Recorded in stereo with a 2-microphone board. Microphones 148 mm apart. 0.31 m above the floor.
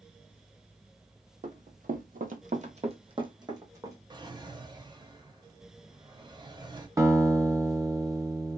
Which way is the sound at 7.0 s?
20° right (ahead or behind).